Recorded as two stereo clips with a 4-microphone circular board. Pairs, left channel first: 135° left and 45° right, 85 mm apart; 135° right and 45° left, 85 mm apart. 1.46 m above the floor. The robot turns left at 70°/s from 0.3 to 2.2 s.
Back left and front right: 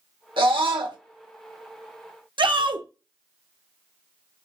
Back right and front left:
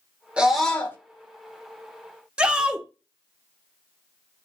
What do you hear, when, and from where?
0.4 s a scream: 30° right, 1.0 m; by 1.0 s 75° right, 1.0 m
2.4 s a shout: 35° right, 0.5 m